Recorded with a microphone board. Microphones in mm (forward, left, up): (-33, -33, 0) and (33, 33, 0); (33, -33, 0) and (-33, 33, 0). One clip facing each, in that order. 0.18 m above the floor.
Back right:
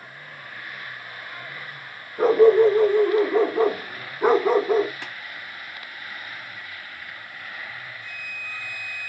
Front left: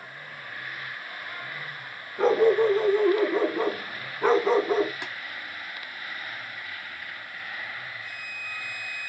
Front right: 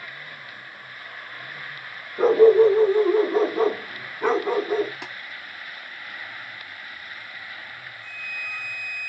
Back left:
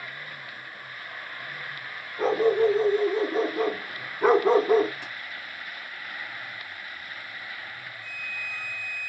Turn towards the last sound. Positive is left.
turn(degrees=-40)